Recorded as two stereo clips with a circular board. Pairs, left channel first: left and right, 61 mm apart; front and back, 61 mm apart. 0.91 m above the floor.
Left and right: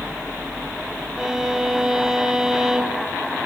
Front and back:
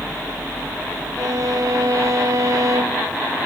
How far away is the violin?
About 1.3 m.